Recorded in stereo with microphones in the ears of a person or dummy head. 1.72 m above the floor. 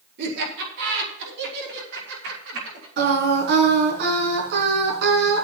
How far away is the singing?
About 4 m.